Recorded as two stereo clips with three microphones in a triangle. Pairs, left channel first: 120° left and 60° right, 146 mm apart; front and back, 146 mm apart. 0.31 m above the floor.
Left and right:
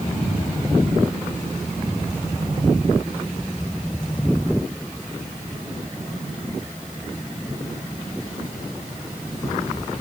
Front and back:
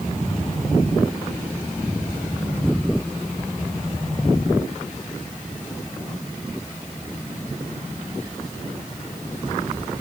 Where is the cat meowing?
I don't hear a cat meowing.